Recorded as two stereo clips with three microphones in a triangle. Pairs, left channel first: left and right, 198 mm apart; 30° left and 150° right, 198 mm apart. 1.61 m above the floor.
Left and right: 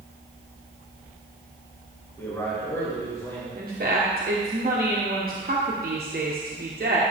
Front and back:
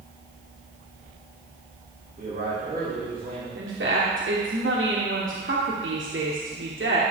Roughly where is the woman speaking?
Behind right.